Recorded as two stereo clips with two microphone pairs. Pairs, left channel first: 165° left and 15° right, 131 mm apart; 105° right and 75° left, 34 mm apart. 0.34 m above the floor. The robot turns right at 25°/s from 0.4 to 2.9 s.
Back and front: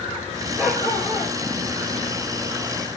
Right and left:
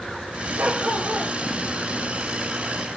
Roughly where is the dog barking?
Ahead left.